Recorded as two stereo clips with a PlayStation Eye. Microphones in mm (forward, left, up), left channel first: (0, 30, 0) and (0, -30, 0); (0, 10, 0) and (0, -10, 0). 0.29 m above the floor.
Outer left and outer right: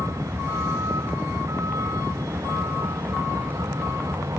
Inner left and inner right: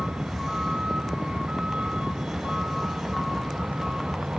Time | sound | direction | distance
0.0 | a vehicle | 70° right (ahead or behind) | ?